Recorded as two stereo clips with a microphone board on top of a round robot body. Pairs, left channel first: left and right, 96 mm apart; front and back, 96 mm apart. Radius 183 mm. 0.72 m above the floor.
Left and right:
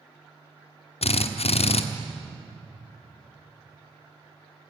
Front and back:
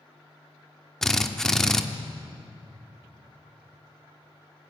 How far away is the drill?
About 1.3 m.